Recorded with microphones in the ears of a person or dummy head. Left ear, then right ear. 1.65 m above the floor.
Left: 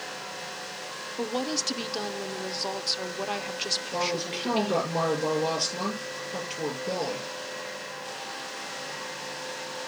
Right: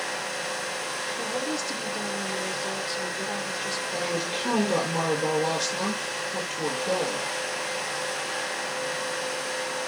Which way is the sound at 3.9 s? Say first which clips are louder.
Right 1 dB; 10° left (ahead or behind).